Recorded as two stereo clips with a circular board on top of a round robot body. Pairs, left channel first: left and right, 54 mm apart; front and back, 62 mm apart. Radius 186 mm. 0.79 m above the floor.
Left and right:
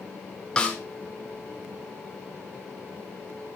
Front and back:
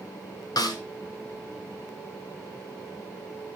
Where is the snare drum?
20° left, 1.5 m.